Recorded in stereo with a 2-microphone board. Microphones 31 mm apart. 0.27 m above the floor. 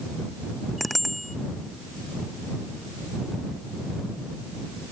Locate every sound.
0.8 s a bicycle bell: 5° left (ahead or behind)